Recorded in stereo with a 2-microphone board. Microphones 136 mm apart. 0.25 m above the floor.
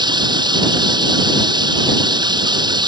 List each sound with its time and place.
0.0 s running water: 30° right (ahead or behind)